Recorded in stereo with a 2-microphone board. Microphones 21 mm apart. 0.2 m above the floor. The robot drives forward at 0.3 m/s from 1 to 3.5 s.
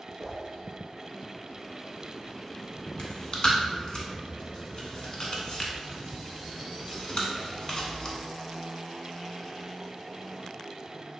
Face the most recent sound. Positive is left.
turn(degrees=40)  # may be behind; listen again after turning